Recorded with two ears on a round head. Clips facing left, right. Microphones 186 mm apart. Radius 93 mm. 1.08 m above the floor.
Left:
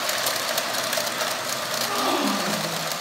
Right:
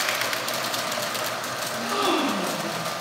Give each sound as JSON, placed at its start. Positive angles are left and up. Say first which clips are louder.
{"t": 1.7, "sound": "a gasp", "louder": "right 2 dB", "side_deg": -25, "distance_m": 5.5}